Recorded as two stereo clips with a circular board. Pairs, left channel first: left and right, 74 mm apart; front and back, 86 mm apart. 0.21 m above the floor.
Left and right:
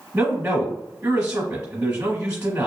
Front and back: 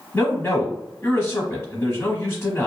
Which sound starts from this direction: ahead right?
A man speaking, at 0.1 s.